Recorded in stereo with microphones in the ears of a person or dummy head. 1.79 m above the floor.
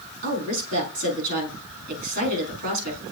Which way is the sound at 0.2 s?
55° right (ahead or behind).